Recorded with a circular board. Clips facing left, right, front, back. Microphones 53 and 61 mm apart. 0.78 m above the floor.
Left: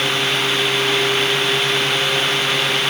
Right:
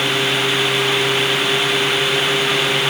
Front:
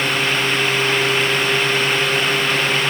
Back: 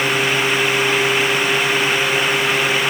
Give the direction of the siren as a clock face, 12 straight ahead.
I don't hear a siren.